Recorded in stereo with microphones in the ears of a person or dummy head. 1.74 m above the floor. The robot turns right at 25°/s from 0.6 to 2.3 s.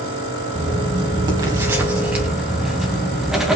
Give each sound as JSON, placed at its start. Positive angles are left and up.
{"t": 0.6, "sound": "writing", "azimuth_deg": -50, "distance_m": 2.0}